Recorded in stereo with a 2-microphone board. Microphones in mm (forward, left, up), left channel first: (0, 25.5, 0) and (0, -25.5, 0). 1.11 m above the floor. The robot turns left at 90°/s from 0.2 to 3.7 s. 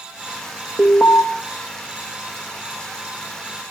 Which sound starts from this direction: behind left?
An alarm, at 0.8 s.